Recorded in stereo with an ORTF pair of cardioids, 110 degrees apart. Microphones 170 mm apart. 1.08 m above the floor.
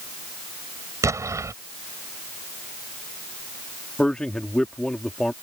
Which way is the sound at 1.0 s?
15° right.